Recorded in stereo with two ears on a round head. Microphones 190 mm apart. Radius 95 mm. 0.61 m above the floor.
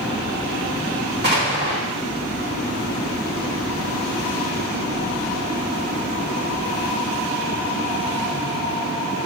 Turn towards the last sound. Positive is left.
turn(degrees=-55)  # may be behind; listen again after turning